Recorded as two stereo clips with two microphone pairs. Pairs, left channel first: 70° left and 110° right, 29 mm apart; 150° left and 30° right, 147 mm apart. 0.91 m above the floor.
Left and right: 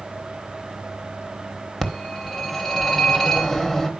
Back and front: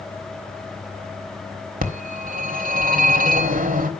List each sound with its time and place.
1.8 s a phone ringing: 15° right, 1.4 m